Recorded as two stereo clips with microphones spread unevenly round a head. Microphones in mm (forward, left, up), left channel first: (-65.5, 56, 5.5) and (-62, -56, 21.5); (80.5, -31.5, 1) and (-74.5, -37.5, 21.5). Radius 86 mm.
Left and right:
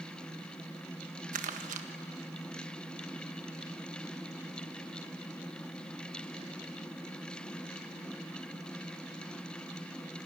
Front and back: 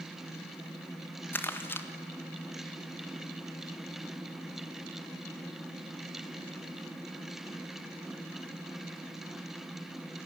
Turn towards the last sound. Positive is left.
turn(degrees=-75)